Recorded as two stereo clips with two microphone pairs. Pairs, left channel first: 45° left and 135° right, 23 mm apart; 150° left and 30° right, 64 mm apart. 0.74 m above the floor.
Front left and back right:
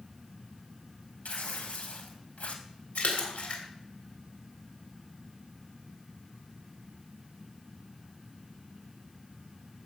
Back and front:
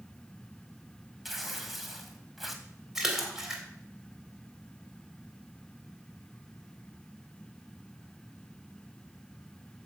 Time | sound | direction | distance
1.2 | tearing paper | 60° left | 1.9 m
3.0 | a splash | 55° left | 3 m